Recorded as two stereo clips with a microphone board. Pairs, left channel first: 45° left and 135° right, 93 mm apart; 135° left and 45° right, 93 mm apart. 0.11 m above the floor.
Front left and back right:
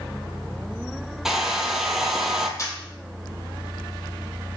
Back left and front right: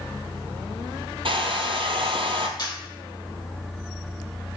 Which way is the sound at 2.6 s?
95° left.